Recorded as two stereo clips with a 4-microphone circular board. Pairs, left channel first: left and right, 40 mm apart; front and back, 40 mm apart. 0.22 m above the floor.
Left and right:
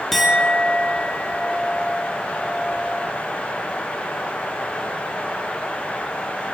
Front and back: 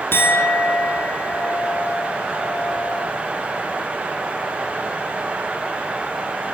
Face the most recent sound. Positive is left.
turn(degrees=5)